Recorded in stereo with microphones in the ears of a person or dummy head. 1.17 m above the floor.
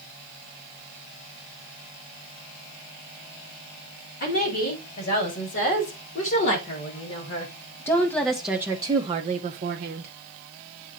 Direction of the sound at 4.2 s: 50° left (ahead or behind).